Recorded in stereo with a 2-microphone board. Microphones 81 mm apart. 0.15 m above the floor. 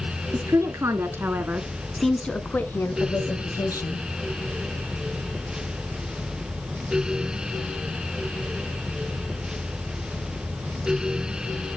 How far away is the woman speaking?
About 1.8 m.